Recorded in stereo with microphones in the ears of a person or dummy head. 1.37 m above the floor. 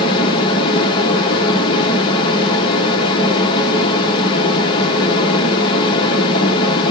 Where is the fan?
30° left (ahead or behind), 0.8 m.